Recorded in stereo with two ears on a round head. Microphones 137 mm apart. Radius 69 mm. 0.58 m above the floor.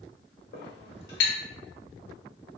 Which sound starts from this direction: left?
A clink, at 0.5 s.